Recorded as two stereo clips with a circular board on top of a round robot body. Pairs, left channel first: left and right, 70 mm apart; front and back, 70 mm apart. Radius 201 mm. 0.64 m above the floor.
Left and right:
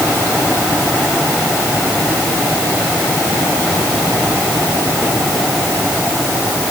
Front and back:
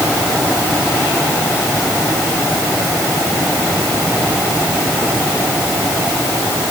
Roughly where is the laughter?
I don't hear laughter.